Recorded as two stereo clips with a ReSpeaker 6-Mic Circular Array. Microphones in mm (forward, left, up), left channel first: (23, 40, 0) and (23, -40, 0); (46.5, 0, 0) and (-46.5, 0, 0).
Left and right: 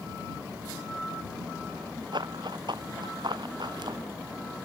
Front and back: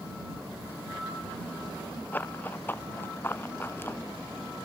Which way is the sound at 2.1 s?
70° right.